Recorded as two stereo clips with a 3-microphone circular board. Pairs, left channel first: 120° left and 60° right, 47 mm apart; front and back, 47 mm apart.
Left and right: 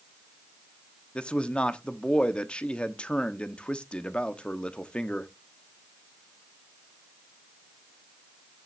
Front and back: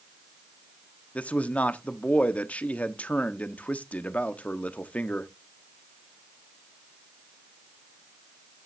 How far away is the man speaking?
About 1.0 m.